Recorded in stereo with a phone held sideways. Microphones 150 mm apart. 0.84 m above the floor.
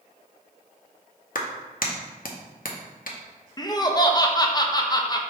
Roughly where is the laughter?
Left.